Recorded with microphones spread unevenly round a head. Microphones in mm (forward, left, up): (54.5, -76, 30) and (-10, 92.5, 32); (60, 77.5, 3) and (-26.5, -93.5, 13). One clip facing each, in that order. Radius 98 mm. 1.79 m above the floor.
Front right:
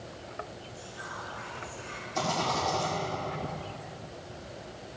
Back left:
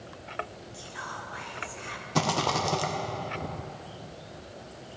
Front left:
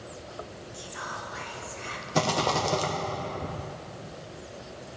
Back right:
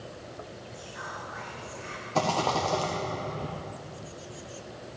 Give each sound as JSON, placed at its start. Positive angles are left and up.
{"t": 0.7, "sound": "whispering", "azimuth_deg": 110, "distance_m": 1.4}
{"t": 2.1, "sound": "a rattle", "azimuth_deg": 140, "distance_m": 1.1}